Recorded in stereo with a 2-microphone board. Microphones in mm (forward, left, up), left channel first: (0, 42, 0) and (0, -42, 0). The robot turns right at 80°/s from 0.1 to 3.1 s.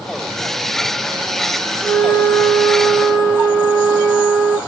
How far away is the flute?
About 1.0 m.